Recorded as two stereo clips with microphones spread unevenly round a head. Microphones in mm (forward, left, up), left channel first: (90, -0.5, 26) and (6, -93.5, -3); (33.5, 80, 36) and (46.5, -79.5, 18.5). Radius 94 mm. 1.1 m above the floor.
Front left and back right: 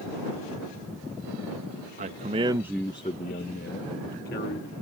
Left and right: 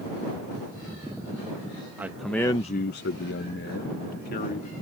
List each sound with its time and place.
2.0 s a man speaking: 165° right; by 4.7 s 60° left